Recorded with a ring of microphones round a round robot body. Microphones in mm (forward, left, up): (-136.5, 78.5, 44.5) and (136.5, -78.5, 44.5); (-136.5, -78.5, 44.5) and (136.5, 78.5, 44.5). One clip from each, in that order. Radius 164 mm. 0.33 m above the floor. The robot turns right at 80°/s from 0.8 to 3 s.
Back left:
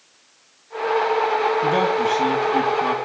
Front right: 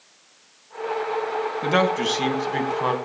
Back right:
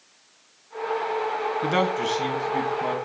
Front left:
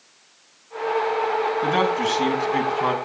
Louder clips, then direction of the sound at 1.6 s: Back left 2 dB, front left 1 dB; 100° right.